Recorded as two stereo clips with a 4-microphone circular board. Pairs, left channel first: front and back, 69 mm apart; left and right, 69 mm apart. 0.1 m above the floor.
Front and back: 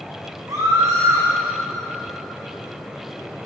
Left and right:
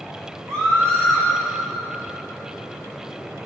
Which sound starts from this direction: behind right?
A scream, at 0.5 s.